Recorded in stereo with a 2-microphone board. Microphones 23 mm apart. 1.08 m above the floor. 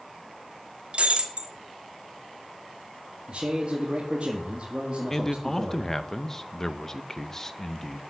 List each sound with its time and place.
0.9 s breaking glass: 55° right (ahead or behind), 1.4 m
3.3 s a man speaking: 50° right (ahead or behind), 1.9 m
5.1 s a man speaking: 20° left (ahead or behind), 0.8 m